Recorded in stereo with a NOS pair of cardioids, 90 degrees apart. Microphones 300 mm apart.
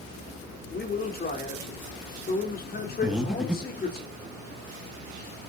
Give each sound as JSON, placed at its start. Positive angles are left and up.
{"t": 0.7, "sound": "a man speaking", "azimuth_deg": 35, "distance_m": 4.0}
{"t": 3.0, "sound": "breathing", "azimuth_deg": -5, "distance_m": 2.0}